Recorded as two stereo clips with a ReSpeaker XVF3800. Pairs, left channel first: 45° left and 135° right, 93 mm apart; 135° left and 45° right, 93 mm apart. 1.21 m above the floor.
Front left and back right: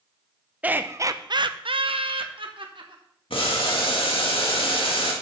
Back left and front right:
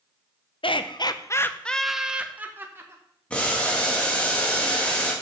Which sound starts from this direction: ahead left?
Boiling, at 3.3 s.